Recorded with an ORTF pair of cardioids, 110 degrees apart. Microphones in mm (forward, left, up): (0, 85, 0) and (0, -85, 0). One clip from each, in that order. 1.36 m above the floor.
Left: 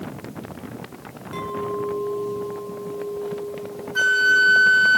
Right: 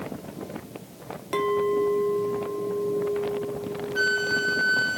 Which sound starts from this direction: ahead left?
A flute, at 4.0 s.